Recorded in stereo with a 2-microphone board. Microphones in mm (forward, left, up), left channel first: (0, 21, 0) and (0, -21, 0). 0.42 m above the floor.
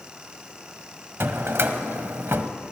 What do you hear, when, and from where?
1.2 s a drawer: 60° right (ahead or behind), 0.7 m